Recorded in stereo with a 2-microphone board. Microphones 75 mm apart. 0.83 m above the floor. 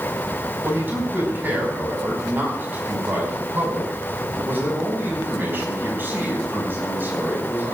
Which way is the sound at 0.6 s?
30° right (ahead or behind).